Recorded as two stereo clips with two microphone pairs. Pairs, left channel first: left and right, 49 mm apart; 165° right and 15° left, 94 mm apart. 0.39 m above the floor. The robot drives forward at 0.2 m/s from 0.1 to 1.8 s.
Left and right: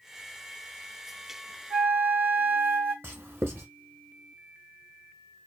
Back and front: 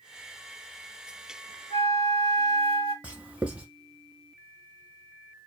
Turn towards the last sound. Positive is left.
turn(degrees=-60)